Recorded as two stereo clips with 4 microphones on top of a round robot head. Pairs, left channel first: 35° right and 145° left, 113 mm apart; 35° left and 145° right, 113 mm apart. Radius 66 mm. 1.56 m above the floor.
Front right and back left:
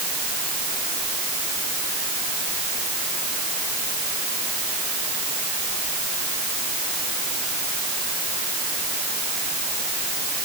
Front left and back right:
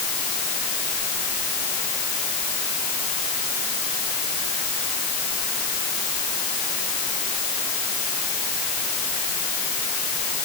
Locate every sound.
Only background noise.